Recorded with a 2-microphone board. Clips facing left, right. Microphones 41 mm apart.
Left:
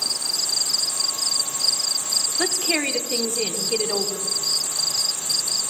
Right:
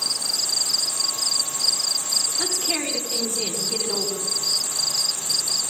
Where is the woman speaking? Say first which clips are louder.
Left 7 dB; 50° left (ahead or behind), 1.1 m.